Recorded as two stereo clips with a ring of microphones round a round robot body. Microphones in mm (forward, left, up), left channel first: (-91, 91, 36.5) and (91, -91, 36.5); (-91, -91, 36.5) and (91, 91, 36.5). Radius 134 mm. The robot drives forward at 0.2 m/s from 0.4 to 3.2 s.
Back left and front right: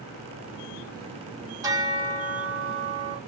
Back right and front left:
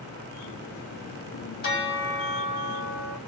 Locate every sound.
1.6 s a bell: 115° right, 1.4 m; by 3.2 s 130° right, 1.5 m